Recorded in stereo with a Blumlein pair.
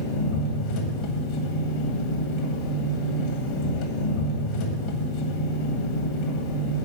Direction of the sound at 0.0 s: 40° left.